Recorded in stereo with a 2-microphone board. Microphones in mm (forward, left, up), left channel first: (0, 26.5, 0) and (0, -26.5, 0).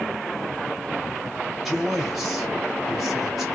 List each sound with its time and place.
1.6 s a man speaking: centre (ahead or behind), 1.5 m